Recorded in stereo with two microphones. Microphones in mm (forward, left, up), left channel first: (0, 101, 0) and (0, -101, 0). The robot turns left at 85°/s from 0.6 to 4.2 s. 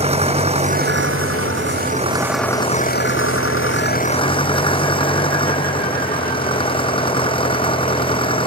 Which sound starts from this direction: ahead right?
An engine running, at 0.0 s.